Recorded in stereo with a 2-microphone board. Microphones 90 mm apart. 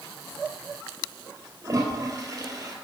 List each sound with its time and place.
1.6 s a toilet flushing: 35° right (ahead or behind), 2.5 m